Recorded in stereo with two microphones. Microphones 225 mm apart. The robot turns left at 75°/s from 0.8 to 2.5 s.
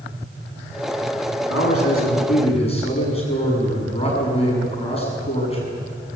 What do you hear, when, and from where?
1.5 s a man speaking: 100° left, 7.5 m; by 5.6 s 25° left, 7.5 m